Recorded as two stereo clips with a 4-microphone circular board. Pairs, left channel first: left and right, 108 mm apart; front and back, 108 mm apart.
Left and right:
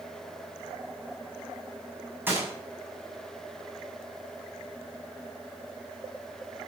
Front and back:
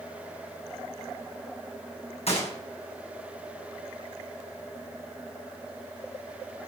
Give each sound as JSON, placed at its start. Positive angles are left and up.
{"t": 2.3, "sound": "a gunshot", "azimuth_deg": -20, "distance_m": 7.5}